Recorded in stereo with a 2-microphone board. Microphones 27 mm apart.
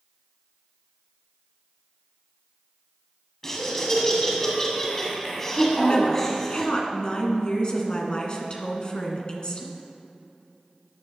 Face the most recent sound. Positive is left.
turn(degrees=35)  # may be behind; listen again after turning